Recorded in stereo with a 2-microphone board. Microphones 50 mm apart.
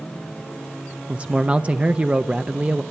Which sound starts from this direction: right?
A man speaking, at 1.1 s.